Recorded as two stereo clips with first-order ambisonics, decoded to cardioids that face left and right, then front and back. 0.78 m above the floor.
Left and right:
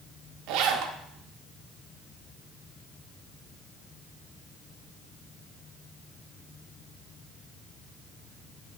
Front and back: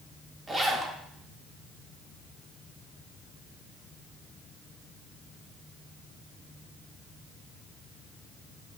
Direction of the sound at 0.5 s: 105° right.